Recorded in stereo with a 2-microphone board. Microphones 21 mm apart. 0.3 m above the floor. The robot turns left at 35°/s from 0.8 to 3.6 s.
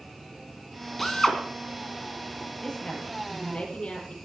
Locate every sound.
1.0 s a drill: 10° left (ahead or behind), 3 m; by 1.4 s 20° left (ahead or behind), 3 m
2.6 s a woman speaking: 145° left, 7 m; by 4.2 s 110° left, 7 m